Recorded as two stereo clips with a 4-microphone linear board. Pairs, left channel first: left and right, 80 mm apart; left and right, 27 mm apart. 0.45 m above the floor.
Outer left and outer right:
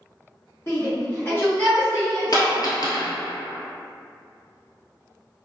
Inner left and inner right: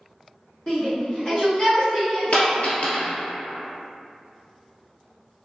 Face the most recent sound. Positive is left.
turn(degrees=50)  # may be behind; listen again after turning